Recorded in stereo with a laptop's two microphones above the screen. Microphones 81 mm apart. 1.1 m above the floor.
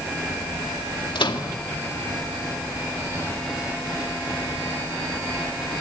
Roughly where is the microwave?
Left.